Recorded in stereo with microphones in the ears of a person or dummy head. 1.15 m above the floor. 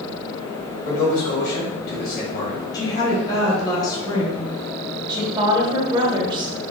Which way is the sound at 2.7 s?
20° left (ahead or behind).